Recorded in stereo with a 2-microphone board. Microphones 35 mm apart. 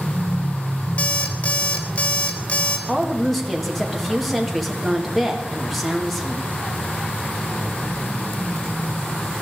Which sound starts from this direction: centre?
A woman speaking, at 2.9 s.